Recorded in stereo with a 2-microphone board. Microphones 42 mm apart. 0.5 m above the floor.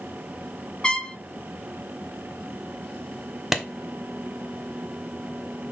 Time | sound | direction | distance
0.8 | a trumpet | 20° left (ahead or behind) | 1.0 m
3.5 | a clap | 5° right (ahead or behind) | 1.3 m